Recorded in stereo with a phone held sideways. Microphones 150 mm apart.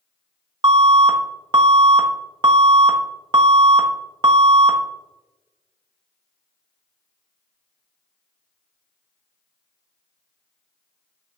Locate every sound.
0.6 s an alarm: 30° right (ahead or behind), 1.1 m